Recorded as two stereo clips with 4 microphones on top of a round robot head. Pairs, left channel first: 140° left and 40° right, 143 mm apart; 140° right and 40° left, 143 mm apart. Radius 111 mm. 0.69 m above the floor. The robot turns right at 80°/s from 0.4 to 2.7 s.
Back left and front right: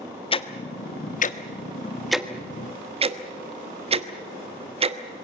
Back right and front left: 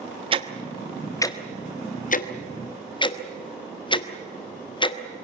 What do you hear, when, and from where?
0.3 s ticking: 90° left, 1.4 m; by 5.0 s 85° right, 1.4 m